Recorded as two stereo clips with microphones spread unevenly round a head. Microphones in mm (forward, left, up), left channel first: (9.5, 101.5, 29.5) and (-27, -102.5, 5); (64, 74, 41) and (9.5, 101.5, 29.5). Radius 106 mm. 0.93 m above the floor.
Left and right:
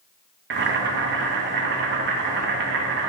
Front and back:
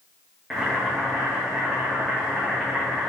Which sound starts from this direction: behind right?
Boiling, at 0.5 s.